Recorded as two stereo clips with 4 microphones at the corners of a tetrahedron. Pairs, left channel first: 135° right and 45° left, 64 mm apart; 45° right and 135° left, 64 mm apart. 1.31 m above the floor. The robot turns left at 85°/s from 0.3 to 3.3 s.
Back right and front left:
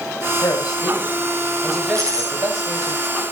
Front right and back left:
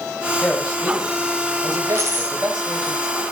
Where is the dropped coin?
95° left, 10 m; by 3.1 s 10° right, 10 m.